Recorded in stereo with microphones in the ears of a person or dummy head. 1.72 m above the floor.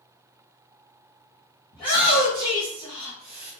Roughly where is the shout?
Left.